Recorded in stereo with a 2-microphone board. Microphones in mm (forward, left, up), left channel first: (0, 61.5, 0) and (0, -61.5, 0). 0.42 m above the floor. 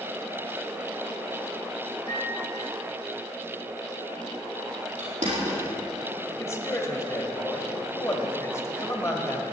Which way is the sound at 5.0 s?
75° right (ahead or behind).